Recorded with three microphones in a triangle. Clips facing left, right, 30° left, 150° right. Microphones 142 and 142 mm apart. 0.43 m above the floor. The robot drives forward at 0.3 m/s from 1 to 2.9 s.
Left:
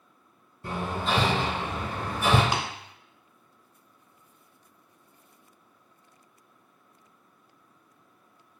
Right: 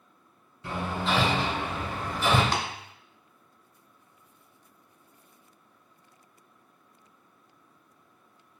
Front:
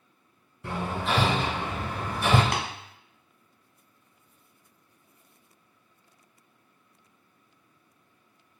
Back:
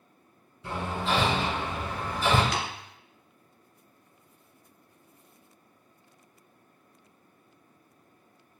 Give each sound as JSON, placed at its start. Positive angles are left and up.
{"t": 0.6, "sound": "hammering", "azimuth_deg": 55, "distance_m": 1.8}
{"t": 2.5, "sound": "tapping", "azimuth_deg": 20, "distance_m": 0.8}